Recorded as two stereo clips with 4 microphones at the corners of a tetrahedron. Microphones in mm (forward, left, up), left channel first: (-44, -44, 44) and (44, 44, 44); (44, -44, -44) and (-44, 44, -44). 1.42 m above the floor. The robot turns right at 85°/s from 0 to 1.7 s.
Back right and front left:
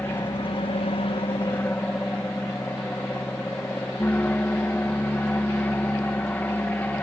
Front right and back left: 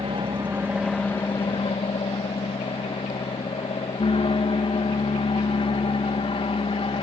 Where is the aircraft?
150° left; by 7.0 s 65° right.